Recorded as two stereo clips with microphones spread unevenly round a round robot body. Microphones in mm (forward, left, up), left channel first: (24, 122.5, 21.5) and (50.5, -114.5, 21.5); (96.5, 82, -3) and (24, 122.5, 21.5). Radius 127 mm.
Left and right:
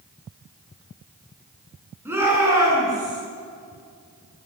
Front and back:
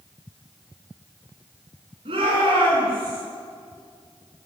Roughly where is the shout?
Behind.